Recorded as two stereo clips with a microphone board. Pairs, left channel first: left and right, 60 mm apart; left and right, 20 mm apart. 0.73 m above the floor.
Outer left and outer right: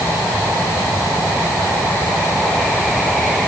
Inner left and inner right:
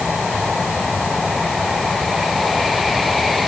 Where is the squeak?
I don't hear a squeak.